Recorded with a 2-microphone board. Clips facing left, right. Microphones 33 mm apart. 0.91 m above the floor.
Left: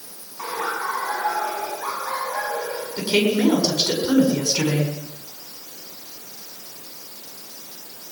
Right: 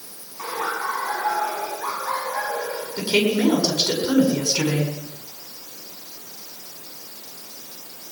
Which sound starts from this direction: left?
Laughter, at 0.4 s.